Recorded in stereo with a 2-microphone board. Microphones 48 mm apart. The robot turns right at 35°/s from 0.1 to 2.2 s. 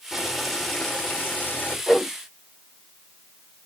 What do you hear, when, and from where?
0.1 s boiling: 10° right, 3 m; by 1.8 s 45° left, 3 m
1.9 s a whoosh: 10° right (ahead or behind), 4.5 m; by 2.1 s centre (ahead or behind), 4.5 m